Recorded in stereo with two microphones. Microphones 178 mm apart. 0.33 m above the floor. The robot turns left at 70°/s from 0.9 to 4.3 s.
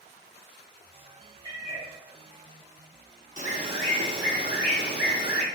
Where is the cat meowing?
155° right, 1.9 m; by 1.9 s 175° left, 1.9 m.